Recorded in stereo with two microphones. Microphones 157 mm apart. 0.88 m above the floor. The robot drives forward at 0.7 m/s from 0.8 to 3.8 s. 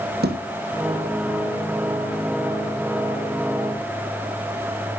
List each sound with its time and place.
0.2 s a thud: 80° right, 4 m